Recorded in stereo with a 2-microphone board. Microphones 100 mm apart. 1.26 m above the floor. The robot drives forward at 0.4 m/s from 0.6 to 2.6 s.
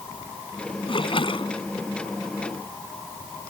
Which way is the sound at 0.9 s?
65° left (ahead or behind).